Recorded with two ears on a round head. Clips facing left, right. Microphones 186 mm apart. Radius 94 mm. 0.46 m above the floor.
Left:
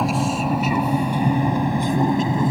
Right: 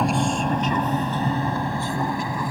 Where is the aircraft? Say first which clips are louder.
Left 1 dB; centre (ahead or behind); by 2.5 s 20° left (ahead or behind).